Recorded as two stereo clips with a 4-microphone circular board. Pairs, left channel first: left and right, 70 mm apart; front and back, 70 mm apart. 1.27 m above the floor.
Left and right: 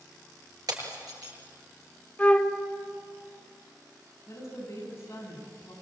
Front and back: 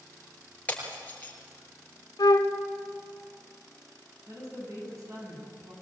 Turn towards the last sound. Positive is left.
turn(degrees=140)